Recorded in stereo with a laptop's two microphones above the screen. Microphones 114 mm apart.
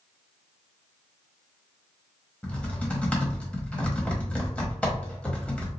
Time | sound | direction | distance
2.4 | typing on a keyboard | 10° left (ahead or behind) | 1.0 m